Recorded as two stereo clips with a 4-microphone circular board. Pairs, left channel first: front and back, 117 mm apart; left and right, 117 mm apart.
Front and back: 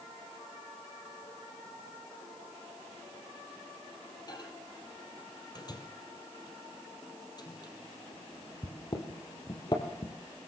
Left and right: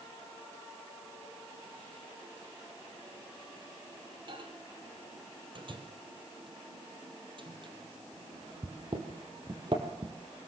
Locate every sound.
4.3 s a microwave: 50° right, 3 m